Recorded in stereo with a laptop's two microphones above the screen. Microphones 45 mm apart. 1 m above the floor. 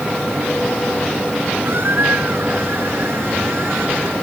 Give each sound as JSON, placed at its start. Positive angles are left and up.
{"t": 1.6, "sound": "a squeak", "side_deg": -60}